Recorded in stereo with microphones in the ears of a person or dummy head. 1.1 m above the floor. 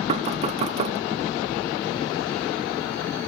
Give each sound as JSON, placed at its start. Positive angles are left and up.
{"t": 0.1, "sound": "knocking", "side_deg": -35, "distance_m": 0.5}